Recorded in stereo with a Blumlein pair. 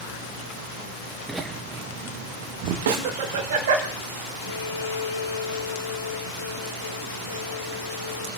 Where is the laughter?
5° right, 0.6 m; by 3.9 s 55° right, 1.8 m.